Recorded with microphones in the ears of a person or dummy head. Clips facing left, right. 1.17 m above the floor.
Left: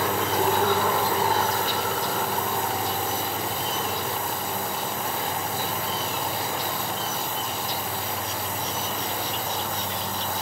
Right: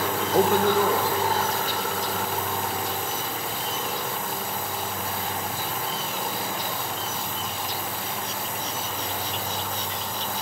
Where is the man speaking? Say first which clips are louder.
Right 5 dB; 30° right (ahead or behind), 0.6 m; by 2.4 s 70° right (ahead or behind), 3.5 m.